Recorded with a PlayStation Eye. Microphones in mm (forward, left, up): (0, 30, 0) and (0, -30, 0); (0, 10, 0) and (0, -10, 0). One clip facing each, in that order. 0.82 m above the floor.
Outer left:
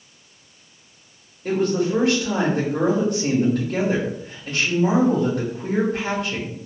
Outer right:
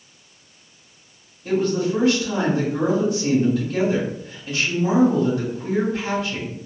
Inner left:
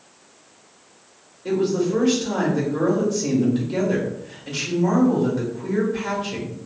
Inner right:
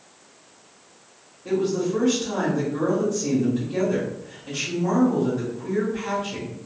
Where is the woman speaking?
60° left (ahead or behind), 1.6 m.